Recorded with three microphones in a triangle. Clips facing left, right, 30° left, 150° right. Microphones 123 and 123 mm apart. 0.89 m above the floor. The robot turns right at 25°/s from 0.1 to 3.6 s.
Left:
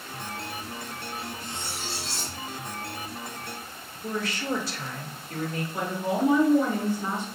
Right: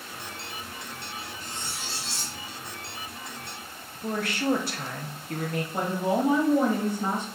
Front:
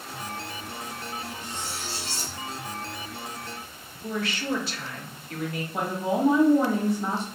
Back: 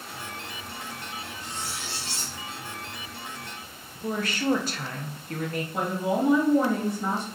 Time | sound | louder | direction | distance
1.4 | cutlery clinking | left 2 dB, front 1 dB | 140° right | 1.7 m
4.0 | a woman speaking | right 3 dB, back 3 dB | 110° right | 0.8 m
5.7 | a woman speaking | right 2 dB, even | 60° right | 1.1 m